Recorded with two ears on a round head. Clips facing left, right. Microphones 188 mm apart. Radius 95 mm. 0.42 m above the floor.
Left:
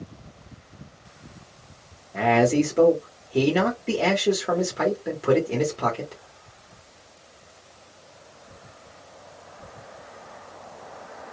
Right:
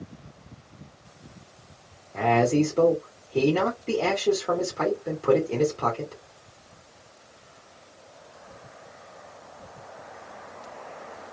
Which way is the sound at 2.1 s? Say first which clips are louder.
Left 2 dB; 15° left (ahead or behind).